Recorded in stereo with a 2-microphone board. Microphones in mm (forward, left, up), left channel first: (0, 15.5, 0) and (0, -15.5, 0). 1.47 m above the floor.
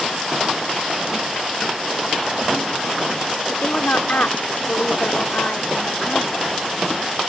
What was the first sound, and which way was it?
A woman speaking, 80° left.